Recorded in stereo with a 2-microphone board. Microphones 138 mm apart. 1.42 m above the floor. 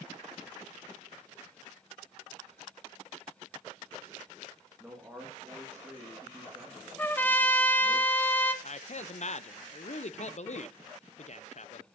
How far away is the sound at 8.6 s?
About 0.5 m.